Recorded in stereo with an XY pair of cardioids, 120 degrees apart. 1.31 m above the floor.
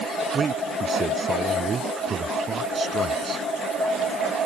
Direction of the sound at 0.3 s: 30° right.